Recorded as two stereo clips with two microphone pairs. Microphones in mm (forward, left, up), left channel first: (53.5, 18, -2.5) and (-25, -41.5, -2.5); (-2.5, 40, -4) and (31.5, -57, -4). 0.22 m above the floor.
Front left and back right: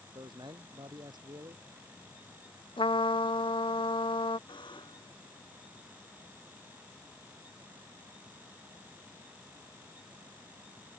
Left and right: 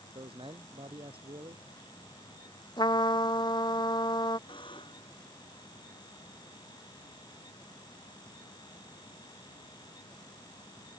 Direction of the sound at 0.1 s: 100° right.